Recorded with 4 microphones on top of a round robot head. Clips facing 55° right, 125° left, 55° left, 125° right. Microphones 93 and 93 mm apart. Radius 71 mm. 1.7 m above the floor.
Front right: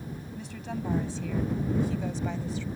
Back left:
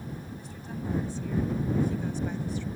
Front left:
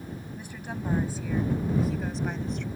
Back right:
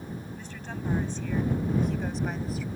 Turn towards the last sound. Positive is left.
turn(degrees=-40)